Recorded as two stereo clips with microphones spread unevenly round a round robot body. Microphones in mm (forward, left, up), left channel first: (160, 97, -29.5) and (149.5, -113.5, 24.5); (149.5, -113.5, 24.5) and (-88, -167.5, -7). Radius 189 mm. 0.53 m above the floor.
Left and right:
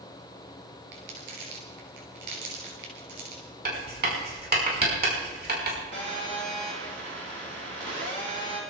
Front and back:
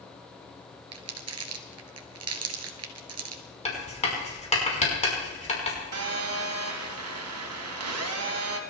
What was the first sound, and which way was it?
Crumpling, 145° right.